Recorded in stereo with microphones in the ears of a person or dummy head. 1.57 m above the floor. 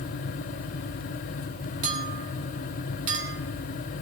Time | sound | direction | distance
1.8 | a clink | 45° right (ahead or behind) | 1.9 m